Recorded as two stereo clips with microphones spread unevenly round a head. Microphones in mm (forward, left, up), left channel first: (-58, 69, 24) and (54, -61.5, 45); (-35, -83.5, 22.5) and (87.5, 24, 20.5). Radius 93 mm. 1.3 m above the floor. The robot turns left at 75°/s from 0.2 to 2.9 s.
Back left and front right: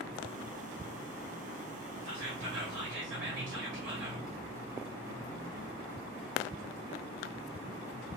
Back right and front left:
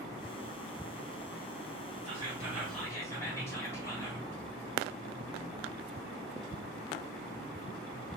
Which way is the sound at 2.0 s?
5° right.